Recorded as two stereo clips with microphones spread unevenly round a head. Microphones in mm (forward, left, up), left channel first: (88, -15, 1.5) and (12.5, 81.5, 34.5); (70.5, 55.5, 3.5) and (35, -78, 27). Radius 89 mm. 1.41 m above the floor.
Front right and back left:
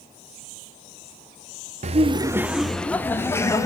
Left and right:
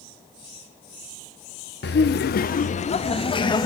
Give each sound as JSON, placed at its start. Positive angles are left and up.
{"t": 1.8, "sound": "laughter", "azimuth_deg": 110, "distance_m": 0.6}